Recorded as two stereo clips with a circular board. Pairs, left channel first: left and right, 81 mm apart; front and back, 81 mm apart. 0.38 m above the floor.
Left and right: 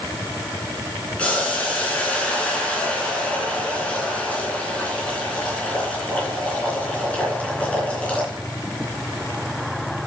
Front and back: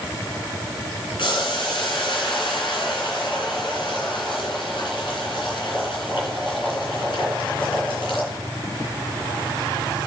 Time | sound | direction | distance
1.2 | boiling | 15° left | 3.5 m